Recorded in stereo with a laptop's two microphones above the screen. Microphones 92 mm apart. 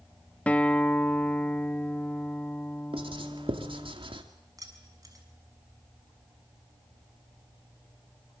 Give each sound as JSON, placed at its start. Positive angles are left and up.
{"t": 0.5, "sound": "a guitar", "side_deg": 15, "distance_m": 1.0}
{"t": 2.9, "sound": "writing", "side_deg": -75, "distance_m": 2.5}
{"t": 4.6, "sound": "keys jangling", "side_deg": -40, "distance_m": 6.0}